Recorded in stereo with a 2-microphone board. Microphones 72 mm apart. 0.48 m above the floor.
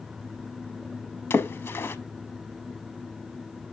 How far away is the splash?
About 0.6 m.